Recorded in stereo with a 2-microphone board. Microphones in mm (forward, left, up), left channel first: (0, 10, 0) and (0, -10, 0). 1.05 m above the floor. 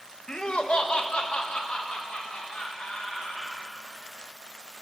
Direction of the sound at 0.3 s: 45° left (ahead or behind).